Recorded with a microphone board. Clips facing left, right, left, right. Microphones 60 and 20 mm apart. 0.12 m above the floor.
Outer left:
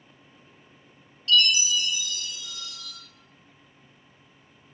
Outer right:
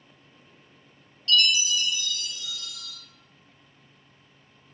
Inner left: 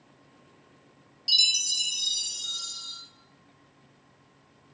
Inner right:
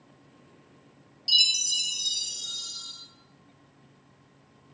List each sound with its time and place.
1.3 s a chime: centre (ahead or behind), 0.8 m